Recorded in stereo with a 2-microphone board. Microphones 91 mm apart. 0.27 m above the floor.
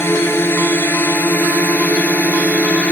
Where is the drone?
25° left (ahead or behind); by 2.9 s 15° left (ahead or behind).